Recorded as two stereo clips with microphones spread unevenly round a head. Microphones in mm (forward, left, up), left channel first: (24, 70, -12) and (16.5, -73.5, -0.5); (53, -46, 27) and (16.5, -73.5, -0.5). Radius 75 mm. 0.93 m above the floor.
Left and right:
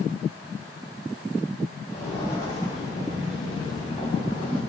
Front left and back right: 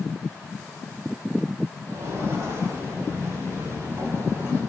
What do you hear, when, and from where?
1.9 s footsteps: 160° left, 6.5 m; by 4.6 s 150° left, 8 m